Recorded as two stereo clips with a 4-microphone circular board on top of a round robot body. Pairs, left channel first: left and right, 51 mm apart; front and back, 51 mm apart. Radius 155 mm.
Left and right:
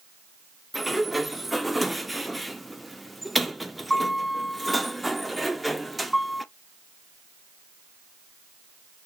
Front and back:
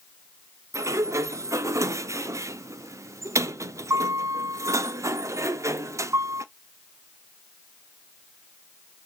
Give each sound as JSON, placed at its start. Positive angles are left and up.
{"t": 0.7, "sound": "a sliding door", "azimuth_deg": 180, "distance_m": 0.5}